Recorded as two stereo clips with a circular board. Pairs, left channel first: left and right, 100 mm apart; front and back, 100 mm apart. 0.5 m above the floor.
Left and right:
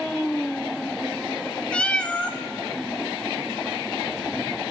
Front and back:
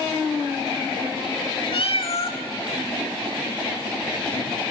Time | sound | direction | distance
1.7 | a cat meowing | 10° left | 0.6 m